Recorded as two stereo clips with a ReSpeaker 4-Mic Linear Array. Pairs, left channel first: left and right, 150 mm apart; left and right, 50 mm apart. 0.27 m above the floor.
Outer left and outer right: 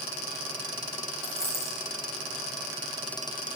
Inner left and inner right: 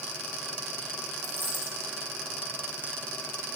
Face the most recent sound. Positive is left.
turn(degrees=40)  # may be behind; listen again after turning